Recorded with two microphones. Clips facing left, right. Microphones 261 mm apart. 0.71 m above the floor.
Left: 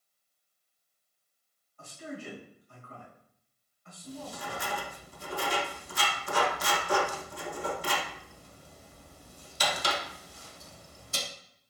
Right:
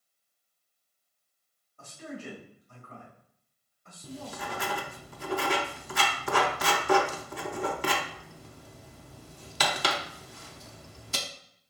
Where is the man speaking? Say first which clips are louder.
Even; 40° right (ahead or behind), 2.5 m.